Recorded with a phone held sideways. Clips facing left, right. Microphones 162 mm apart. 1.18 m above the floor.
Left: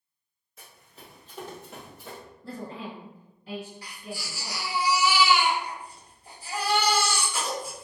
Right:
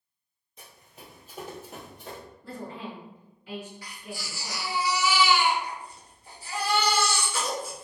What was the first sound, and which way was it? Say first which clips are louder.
Running footsteps: right 1 dB; 20° right (ahead or behind).